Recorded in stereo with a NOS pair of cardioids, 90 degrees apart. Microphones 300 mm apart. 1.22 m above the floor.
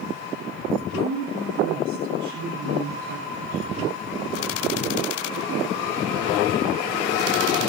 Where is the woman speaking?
65° right, 3 m.